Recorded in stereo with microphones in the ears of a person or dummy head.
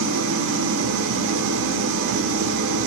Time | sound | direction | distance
0.0 | an engine running | 70° right (ahead or behind) | 0.7 m